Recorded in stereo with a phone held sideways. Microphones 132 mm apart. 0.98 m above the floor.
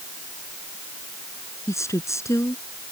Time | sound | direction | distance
1.7 | a woman speaking | 20° left (ahead or behind) | ?